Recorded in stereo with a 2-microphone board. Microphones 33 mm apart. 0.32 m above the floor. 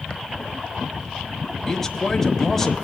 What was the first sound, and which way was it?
A man speaking, 10° left (ahead or behind).